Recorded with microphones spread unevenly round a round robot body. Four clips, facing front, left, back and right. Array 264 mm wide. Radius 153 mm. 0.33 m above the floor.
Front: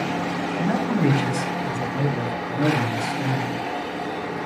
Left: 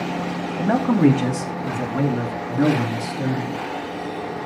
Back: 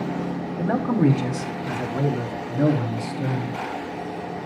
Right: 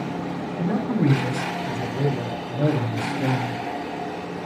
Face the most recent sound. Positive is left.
turn(degrees=75)